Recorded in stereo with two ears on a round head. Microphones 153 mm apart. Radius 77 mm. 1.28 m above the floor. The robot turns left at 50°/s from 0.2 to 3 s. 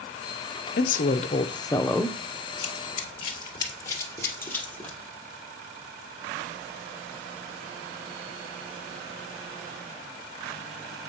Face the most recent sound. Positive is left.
turn(degrees=5)  # may be behind; listen again after turning